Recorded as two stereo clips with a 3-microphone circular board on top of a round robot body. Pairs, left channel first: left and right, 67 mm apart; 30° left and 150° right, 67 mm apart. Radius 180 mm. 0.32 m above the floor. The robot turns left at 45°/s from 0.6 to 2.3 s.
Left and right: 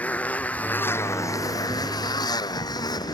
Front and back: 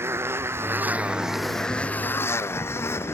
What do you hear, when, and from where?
0.0 s a motorcycle: 155° left; by 3.1 s 80° left